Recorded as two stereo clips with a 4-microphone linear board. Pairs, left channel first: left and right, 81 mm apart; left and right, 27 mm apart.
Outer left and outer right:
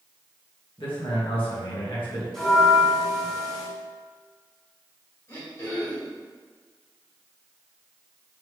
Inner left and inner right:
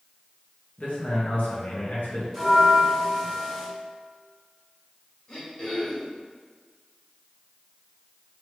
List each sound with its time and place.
0.8 s a man speaking: 85° left, 1.6 m
2.3 s a bell: 5° left (ahead or behind), 1.8 m
5.3 s throat clearing: 40° left (ahead or behind), 1.8 m